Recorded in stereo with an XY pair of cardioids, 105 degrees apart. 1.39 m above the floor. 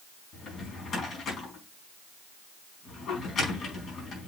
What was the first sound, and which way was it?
A drawer, 60° left.